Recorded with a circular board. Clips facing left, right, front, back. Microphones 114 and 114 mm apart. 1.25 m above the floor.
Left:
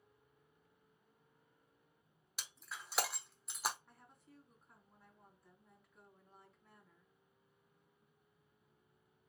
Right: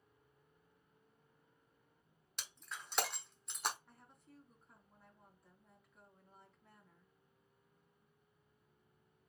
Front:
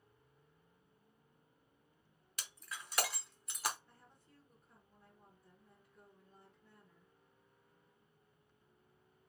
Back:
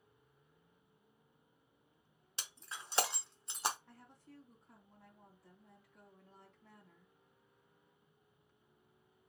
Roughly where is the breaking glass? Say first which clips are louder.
Even, even; behind.